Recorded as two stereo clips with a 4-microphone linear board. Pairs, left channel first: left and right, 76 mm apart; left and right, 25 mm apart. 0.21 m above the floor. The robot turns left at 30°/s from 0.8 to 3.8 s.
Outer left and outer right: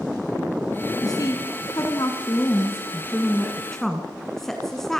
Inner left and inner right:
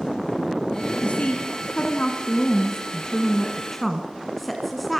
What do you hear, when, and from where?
1.0 s a woman speaking: 90° left, 1.8 m; by 5.0 s 5° left, 1.8 m